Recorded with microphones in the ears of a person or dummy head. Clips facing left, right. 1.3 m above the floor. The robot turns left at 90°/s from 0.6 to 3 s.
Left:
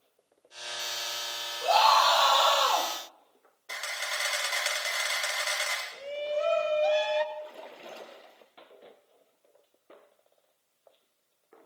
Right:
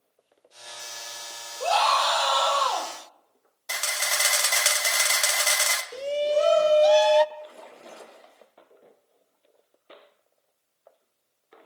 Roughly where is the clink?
No clink in this recording.